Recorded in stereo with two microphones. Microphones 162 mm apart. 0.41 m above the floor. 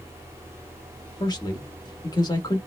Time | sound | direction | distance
1.2 | a man speaking | 25° left (ahead or behind) | 0.9 m